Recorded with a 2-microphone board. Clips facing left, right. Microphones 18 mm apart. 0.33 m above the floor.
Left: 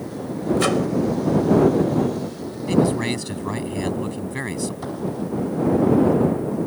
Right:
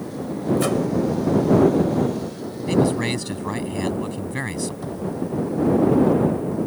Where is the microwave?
30° left (ahead or behind).